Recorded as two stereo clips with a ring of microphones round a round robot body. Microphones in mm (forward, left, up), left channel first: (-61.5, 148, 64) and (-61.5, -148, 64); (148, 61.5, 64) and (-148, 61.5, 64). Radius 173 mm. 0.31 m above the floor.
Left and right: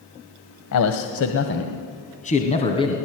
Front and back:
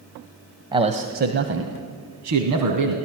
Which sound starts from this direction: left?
A man speaking, at 0.7 s.